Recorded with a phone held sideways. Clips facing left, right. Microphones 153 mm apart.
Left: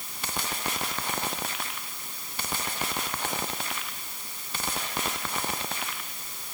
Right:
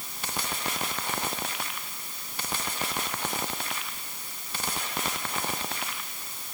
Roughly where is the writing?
I don't hear writing.